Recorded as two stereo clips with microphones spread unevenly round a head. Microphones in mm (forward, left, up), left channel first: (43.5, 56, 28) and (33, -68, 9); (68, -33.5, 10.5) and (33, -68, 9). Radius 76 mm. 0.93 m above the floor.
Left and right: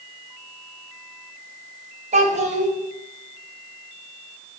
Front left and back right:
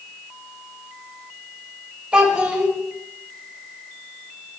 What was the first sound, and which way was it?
A child speaking, 65° right.